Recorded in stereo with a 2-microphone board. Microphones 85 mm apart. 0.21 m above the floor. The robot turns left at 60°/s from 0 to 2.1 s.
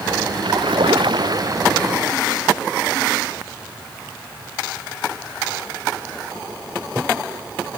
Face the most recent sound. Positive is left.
turn(degrees=-175)